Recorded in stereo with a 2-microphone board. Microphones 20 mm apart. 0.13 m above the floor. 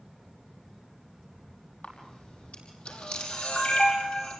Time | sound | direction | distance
1.8 | a camera shutter | 70° left (ahead or behind) | 5 m